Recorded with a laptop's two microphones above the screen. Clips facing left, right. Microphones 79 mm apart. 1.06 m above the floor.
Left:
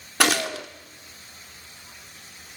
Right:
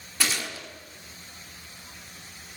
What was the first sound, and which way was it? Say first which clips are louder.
A gunshot: left 9 dB; 70° left (ahead or behind).